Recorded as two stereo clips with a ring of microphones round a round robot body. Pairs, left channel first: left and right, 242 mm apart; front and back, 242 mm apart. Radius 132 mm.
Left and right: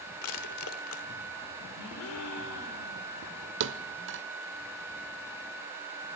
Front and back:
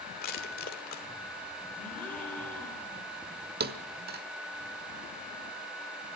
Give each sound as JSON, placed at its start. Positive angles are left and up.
{"t": 0.2, "sound": "crushing", "azimuth_deg": 55, "distance_m": 1.5}
{"t": 1.8, "sound": "a gasp", "azimuth_deg": 85, "distance_m": 2.5}
{"t": 3.6, "sound": "a thud", "azimuth_deg": -130, "distance_m": 1.0}